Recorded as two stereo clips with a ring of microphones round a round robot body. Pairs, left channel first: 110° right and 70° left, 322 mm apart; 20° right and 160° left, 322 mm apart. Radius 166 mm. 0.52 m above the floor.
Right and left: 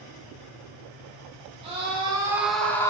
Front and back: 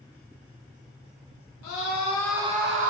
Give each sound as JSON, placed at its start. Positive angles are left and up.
{"t": 1.6, "sound": "a scream", "azimuth_deg": 0, "distance_m": 1.4}